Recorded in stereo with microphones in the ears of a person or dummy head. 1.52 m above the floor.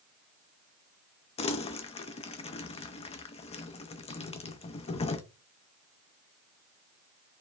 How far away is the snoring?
No snoring in this recording.